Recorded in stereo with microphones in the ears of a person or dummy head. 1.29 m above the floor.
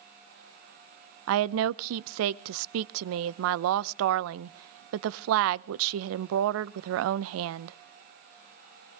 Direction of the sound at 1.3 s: 80° right.